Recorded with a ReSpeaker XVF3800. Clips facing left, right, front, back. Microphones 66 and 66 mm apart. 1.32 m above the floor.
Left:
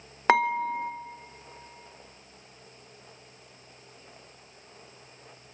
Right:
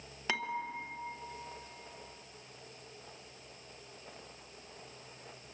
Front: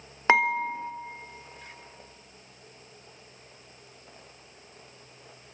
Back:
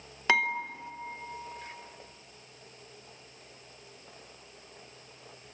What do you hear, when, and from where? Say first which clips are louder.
0.3 s dishes clattering: left 14 dB, front 5 dB; 60° left, 0.9 m